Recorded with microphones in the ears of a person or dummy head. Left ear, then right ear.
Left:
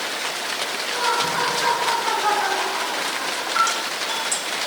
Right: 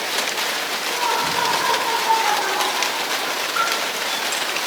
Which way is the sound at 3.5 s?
80° left.